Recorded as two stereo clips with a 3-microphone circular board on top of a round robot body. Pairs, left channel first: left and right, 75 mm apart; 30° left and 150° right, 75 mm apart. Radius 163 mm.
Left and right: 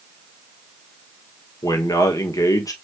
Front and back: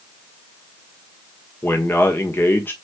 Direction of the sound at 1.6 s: 85° left.